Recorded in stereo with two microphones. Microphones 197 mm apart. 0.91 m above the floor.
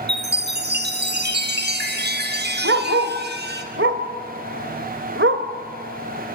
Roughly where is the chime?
Right.